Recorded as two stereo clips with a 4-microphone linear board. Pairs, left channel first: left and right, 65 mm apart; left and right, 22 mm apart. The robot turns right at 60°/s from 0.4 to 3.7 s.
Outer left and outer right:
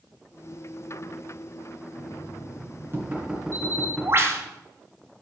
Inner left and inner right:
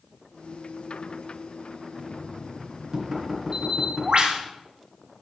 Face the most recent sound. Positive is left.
turn(degrees=-40)  # may be behind; listen again after turning